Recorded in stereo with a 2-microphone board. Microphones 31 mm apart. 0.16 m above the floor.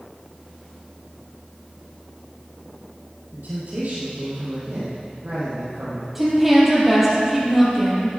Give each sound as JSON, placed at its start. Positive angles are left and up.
{"t": 3.3, "sound": "a man speaking", "side_deg": -65, "distance_m": 4.0}
{"t": 6.2, "sound": "a woman speaking", "side_deg": -5, "distance_m": 5.0}